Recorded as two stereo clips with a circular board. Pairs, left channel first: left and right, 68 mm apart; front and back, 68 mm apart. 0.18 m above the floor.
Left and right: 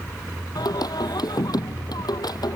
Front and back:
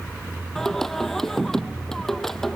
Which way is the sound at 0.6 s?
85° left.